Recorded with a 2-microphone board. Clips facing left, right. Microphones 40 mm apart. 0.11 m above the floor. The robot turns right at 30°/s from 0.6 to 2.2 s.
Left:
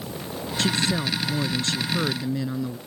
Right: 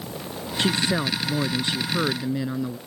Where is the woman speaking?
25° right (ahead or behind); by 2.8 s 15° right (ahead or behind).